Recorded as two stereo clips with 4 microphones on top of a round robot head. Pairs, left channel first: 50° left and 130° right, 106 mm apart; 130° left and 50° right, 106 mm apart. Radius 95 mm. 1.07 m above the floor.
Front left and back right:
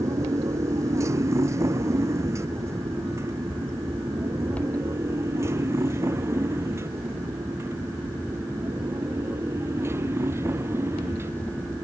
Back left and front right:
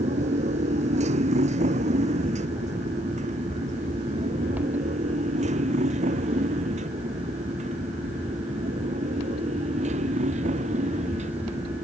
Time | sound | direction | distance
0.0 | a motorcycle | 65° right | ?